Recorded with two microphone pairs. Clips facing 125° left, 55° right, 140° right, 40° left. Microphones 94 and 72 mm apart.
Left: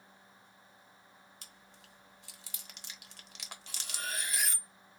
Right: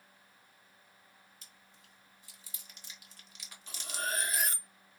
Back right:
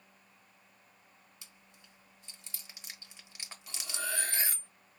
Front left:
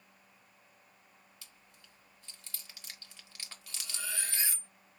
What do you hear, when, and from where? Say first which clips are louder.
1.4 s chewing: left 4 dB, even; 150° left, 0.8 m
3.7 s cutlery clinking: right 5 dB, back right 5 dB; 100° right, 0.7 m